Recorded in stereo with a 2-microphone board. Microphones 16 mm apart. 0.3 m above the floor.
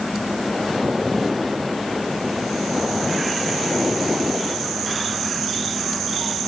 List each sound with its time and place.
Only background noise.